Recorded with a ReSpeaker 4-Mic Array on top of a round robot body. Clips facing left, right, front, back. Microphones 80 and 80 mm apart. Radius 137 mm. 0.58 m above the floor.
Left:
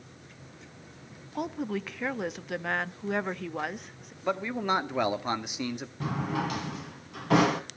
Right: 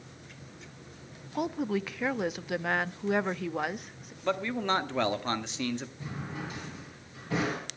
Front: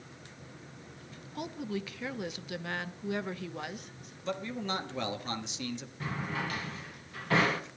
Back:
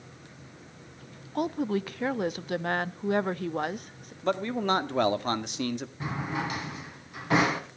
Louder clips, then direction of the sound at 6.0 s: Left 8 dB, back 2 dB; 110° left.